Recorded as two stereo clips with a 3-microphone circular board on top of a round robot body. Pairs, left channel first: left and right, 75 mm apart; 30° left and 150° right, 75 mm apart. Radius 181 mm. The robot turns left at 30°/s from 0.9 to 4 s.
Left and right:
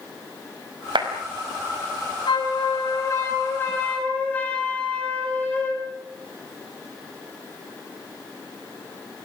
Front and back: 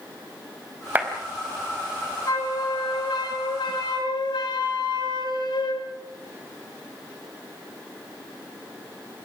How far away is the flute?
About 8.5 m.